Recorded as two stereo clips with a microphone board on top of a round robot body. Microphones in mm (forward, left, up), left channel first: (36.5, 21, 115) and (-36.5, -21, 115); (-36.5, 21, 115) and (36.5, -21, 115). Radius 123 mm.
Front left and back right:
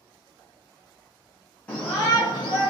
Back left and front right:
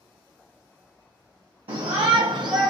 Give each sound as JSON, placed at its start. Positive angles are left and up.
{"t": 1.7, "sound": "a shout", "azimuth_deg": -40, "distance_m": 0.8}